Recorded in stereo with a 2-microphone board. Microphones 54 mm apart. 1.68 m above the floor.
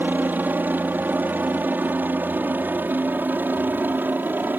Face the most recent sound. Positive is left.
turn(degrees=-35)  # may be behind; listen again after turning